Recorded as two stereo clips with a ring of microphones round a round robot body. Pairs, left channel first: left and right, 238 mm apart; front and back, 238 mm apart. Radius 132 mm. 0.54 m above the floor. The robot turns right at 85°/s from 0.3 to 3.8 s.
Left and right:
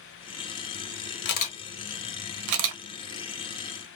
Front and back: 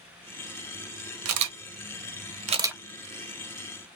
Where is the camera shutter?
140° left, 0.6 m; by 2.8 s 90° right, 0.6 m.